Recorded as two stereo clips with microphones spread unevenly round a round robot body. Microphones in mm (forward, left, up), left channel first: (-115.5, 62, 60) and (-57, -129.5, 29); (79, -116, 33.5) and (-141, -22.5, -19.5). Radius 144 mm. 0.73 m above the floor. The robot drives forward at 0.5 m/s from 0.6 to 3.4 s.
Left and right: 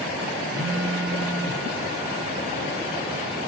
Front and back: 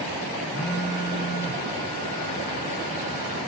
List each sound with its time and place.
0.5 s a phone buzzing: 35° right, 2.5 m; by 1.6 s 45° right, 2 m